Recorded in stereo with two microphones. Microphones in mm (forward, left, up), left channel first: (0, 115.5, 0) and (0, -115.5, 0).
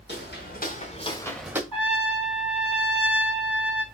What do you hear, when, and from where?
0.1 s footsteps: 50° left (ahead or behind), 1.3 m; by 1.6 s 10° right (ahead or behind), 0.6 m
1.7 s a trumpet: 25° left (ahead or behind), 1.7 m